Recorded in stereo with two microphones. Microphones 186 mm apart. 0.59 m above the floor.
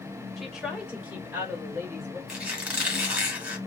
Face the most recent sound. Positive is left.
turn(degrees=-5)  # may be behind; listen again after turning